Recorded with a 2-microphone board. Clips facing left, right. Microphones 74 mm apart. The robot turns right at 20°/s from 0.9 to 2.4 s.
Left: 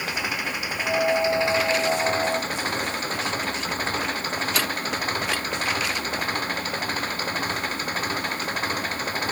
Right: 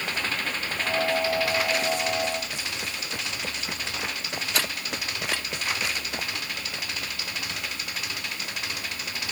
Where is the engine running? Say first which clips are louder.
Left 2 dB; 10° left; by 9.3 s 40° left.